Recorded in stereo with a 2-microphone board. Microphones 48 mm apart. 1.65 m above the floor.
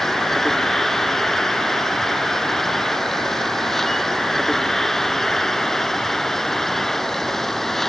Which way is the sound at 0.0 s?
10° left (ahead or behind).